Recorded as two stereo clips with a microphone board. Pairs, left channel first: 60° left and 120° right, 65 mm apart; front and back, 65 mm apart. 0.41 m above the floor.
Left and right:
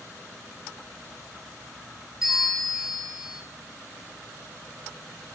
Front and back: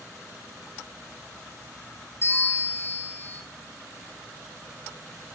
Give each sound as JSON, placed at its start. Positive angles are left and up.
{"t": 2.2, "sound": "a bell", "azimuth_deg": -45, "distance_m": 2.0}